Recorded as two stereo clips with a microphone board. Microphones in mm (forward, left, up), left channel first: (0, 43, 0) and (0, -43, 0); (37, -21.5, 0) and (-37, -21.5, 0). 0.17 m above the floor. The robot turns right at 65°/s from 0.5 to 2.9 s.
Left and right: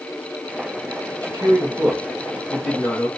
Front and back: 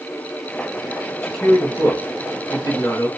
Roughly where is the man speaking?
Right.